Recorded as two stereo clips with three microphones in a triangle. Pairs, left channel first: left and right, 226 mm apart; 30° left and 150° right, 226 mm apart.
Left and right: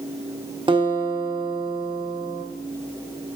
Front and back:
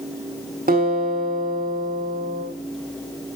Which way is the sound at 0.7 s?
145° right.